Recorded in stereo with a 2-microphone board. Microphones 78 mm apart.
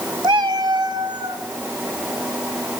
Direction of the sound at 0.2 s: 75° right (ahead or behind).